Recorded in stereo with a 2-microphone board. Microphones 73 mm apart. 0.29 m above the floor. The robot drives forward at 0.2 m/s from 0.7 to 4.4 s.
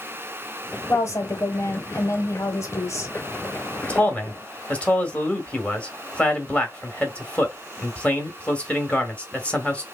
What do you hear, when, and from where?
0.9 s a woman speaking: 45° left (ahead or behind), 1.5 m
3.8 s a man speaking: 20° left (ahead or behind), 1.3 m